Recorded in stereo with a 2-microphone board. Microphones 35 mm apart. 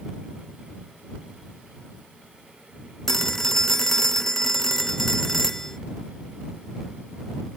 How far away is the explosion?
I don't hear an explosion.